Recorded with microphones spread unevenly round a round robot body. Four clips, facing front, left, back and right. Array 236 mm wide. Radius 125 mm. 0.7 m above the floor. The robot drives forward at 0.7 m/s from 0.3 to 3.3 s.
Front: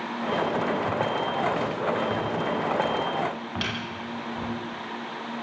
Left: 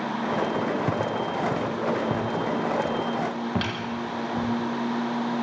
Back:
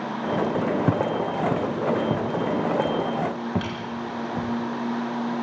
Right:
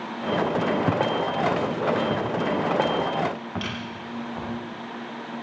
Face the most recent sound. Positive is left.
turn(degrees=70)